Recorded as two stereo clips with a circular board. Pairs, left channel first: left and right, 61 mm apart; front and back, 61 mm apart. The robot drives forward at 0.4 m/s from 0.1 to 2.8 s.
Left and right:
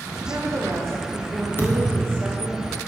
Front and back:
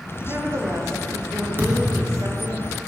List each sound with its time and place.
0.2 s a woman speaking: 125° right, 1.1 m; by 2.6 s 150° right, 1.8 m
1.6 s a thud: 135° left, 1.2 m; by 2.3 s 145° left, 1.4 m